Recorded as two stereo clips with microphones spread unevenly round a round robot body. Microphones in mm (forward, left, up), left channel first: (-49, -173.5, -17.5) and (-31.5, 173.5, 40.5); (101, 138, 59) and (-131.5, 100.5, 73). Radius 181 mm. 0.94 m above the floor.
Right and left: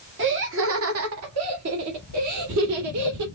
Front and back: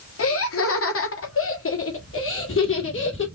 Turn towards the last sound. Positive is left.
turn(degrees=40)